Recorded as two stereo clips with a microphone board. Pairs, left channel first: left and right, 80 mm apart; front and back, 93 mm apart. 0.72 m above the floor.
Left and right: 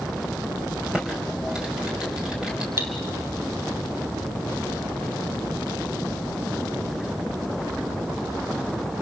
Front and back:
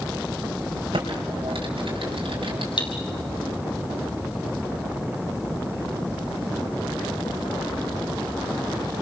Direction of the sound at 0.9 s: 170° right.